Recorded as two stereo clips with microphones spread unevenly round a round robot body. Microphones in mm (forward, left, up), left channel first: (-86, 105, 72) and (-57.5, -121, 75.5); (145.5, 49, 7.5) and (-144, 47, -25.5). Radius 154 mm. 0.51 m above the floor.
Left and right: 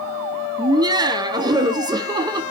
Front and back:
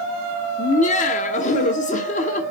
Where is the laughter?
40° right, 0.9 m.